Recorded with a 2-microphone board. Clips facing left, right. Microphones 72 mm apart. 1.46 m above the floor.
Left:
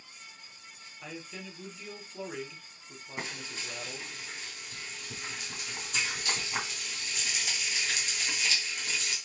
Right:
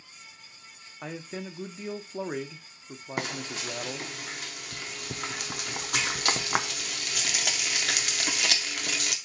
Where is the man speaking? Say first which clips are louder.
Right 6 dB; 40° right (ahead or behind), 0.8 m.